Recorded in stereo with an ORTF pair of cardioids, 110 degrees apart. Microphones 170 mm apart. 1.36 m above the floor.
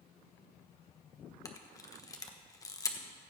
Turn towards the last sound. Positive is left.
turn(degrees=20)